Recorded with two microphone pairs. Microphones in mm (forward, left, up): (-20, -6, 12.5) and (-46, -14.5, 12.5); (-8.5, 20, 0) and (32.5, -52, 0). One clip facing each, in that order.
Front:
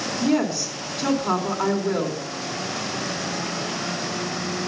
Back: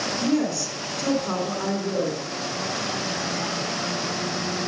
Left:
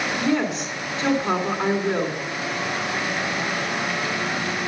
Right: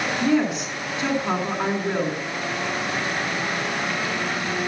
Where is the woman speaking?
25° left, 2 m.